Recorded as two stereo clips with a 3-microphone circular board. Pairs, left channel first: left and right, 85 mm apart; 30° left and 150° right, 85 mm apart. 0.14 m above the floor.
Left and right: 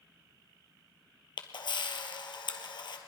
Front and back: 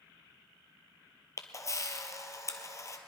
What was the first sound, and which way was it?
A camera shutter, 80° left.